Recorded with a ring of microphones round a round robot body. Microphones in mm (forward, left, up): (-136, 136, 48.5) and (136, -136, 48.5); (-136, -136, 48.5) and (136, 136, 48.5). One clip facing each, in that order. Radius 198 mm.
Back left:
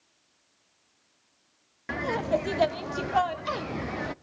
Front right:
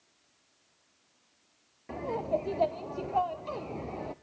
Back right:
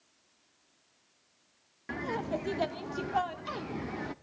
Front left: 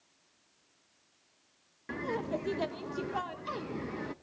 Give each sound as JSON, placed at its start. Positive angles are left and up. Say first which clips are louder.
{"t": 1.9, "sound": "laughter", "louder": "back left 4 dB, even", "azimuth_deg": 145, "distance_m": 0.5}